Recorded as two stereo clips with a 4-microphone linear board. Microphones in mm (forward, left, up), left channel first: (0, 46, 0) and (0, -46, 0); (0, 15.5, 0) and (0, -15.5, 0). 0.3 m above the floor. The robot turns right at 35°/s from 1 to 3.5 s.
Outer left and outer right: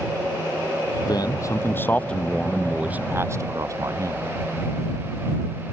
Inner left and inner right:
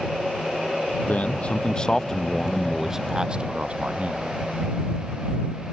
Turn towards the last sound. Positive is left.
turn(degrees=-145)